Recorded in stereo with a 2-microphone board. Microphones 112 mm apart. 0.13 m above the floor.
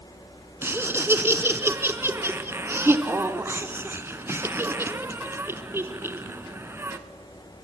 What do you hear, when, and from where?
0.6 s laughter: 20° right (ahead or behind), 1.1 m